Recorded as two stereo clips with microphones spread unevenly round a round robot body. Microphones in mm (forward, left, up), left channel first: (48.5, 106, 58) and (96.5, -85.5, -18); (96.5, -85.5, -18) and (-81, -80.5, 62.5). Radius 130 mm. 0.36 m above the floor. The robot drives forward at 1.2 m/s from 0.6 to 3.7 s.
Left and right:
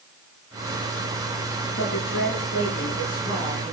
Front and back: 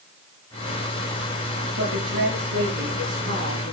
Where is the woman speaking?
150° left, 6.5 m; by 3.7 s 160° left, 9 m.